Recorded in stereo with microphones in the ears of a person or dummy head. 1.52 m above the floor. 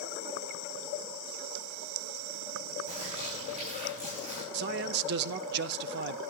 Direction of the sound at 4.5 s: 55° right (ahead or behind).